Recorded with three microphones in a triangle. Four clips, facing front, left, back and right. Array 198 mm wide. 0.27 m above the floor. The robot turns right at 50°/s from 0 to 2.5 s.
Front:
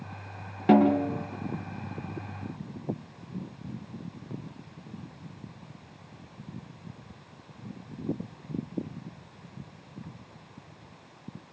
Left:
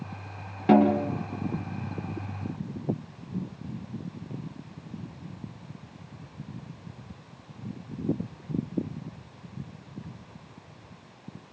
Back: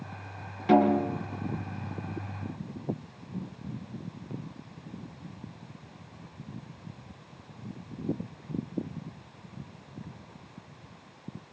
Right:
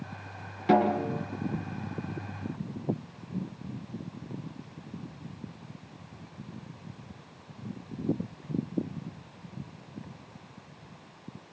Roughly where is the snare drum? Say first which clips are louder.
Left 4 dB, front 1 dB; ahead left.